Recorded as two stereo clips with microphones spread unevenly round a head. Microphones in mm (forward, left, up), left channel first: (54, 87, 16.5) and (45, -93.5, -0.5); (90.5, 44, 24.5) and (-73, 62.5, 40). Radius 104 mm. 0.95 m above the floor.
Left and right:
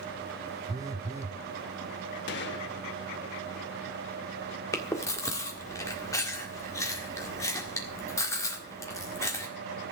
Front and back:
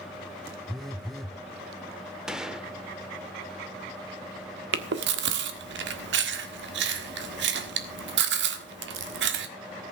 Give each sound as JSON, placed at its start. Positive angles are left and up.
{"t": 0.7, "sound": "a phone buzzing", "azimuth_deg": -80, "distance_m": 0.6}
{"t": 2.3, "sound": "a gunshot", "azimuth_deg": 90, "distance_m": 1.0}
{"t": 4.7, "sound": "chewing", "azimuth_deg": 165, "distance_m": 1.5}